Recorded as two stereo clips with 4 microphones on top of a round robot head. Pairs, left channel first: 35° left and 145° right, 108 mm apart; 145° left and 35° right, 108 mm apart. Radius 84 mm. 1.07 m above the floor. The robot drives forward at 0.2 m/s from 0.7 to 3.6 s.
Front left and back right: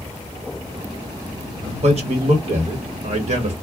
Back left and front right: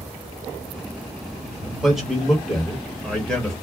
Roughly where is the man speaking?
Behind right.